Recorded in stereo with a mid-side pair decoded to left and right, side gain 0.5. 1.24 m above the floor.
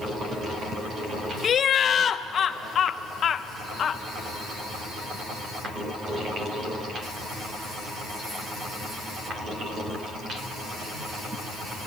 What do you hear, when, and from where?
1.4 s laughter: 45° left, 0.6 m